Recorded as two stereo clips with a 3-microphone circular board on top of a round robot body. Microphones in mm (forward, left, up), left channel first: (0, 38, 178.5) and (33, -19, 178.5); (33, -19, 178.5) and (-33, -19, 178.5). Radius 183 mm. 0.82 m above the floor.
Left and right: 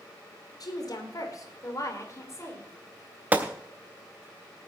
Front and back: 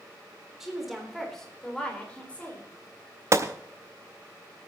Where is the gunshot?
130° right, 0.6 m.